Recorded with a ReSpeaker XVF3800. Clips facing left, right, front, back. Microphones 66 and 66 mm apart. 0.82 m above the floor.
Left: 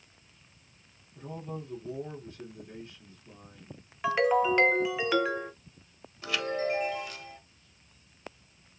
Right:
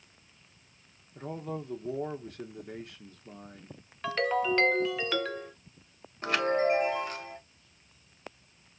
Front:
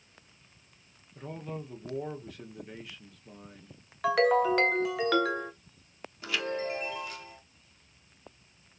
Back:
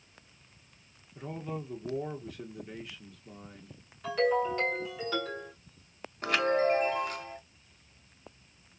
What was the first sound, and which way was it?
A man speaking, 90° right.